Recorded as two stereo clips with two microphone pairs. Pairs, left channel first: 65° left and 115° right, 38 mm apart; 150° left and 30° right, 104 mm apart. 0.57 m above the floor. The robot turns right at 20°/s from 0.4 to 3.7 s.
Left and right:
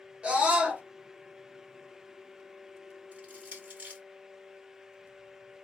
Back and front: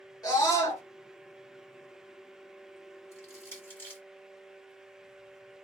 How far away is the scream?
About 1.4 m.